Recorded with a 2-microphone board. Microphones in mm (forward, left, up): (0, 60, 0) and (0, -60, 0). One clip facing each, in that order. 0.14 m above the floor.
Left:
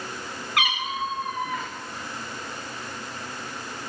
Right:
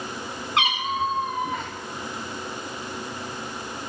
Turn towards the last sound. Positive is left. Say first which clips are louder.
# right 3 dB
turn(degrees=-25)  # may be behind; listen again after turning